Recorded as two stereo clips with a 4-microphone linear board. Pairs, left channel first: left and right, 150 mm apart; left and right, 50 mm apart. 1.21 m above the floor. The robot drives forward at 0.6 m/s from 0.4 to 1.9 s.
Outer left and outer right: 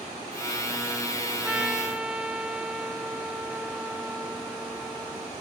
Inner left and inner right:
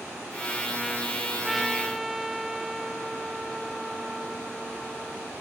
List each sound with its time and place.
1.4 s a trumpet: 10° right (ahead or behind); by 5.3 s 5° right (ahead or behind)